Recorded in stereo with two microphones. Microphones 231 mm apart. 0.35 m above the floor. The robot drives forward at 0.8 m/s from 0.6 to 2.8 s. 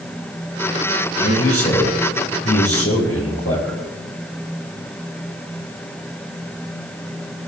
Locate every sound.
1.2 s a man speaking: 80° left, 10 m; by 3.8 s 85° left, 10 m